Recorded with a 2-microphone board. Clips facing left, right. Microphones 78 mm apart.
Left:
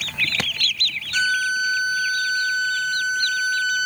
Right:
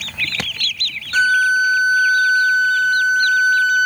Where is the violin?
40° right (ahead or behind), 1.0 m.